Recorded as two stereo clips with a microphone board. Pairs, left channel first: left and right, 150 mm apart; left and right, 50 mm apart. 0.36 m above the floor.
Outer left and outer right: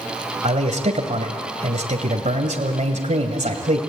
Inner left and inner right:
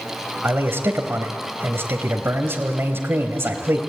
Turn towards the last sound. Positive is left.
turn(degrees=-50)  # may be behind; listen again after turning